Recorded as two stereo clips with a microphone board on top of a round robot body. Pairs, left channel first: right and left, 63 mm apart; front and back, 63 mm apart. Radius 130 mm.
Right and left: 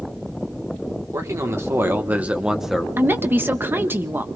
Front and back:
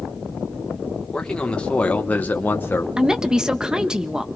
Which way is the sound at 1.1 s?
75° left.